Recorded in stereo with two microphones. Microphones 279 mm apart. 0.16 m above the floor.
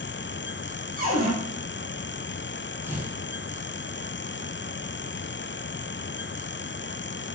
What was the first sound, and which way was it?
A cupboard door, 30° right (ahead or behind).